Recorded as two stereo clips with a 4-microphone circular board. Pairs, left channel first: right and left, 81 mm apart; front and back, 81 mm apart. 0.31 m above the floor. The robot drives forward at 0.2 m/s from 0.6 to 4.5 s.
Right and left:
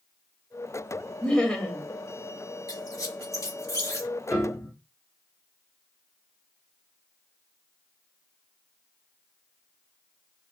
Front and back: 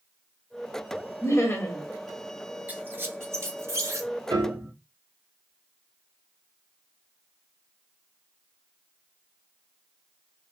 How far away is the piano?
About 2.5 m.